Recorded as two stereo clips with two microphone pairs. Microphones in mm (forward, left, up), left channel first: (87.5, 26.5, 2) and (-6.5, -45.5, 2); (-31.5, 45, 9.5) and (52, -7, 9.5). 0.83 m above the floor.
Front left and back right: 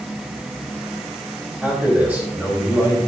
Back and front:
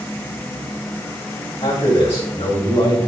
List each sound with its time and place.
1.6 s a man speaking: 140° left, 3.5 m